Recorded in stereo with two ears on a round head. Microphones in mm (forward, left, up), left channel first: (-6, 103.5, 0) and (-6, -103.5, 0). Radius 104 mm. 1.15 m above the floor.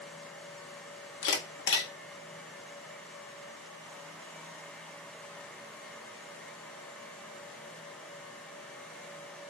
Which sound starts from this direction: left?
A camera shutter, at 1.2 s.